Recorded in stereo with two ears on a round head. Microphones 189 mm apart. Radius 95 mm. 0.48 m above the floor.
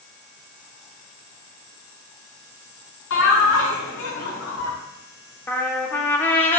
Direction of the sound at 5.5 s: 10° left (ahead or behind).